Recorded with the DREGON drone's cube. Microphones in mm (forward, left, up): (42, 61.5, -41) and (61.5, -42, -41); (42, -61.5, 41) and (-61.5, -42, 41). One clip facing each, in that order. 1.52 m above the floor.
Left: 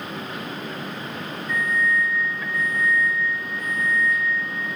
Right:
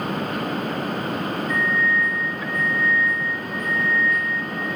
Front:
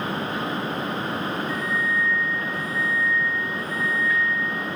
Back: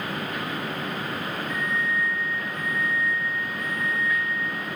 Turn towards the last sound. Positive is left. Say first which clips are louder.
# left 1 dB, front 2 dB
turn(degrees=-35)